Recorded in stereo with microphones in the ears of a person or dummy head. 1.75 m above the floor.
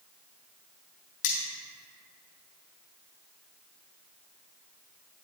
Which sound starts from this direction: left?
Cutlery clinking, at 1.2 s.